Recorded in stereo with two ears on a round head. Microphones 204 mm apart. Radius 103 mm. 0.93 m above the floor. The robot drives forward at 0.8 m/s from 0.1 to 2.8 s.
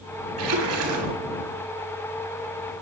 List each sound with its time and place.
0.4 s a splash: 90° right, 8 m; by 1.1 s 85° right, 8 m